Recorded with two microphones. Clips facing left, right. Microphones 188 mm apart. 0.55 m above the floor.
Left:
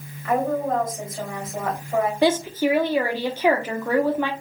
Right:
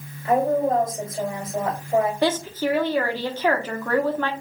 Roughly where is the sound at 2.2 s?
Centre.